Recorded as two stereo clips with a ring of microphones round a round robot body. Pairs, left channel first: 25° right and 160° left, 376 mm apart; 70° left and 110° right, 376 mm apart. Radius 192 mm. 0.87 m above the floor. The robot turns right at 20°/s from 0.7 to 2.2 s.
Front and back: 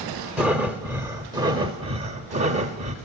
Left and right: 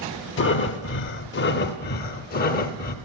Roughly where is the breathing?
Left.